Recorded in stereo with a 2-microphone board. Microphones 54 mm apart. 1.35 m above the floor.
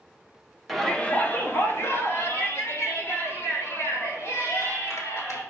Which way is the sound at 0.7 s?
Centre (ahead or behind).